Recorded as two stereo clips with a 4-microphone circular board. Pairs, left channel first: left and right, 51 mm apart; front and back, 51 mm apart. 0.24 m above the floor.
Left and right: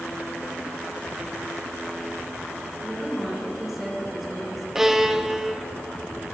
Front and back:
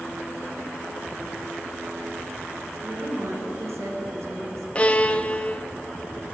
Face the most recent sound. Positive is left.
turn(degrees=-25)